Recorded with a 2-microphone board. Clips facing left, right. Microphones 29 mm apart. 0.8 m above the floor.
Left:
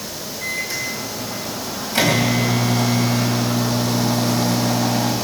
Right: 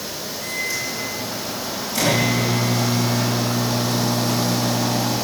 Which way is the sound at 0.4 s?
65° left (ahead or behind).